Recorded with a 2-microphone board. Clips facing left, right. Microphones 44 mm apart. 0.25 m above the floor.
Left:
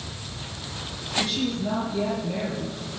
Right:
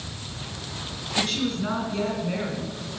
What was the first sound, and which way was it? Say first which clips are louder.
A woman speaking: even; 60° right (ahead or behind).